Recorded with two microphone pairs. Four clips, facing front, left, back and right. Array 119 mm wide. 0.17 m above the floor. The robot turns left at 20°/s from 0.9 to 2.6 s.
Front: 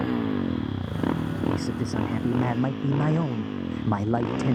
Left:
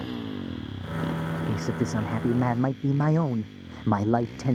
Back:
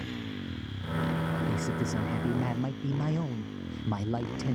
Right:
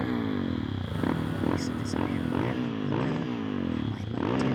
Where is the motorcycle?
15° right; by 4.5 s 50° right.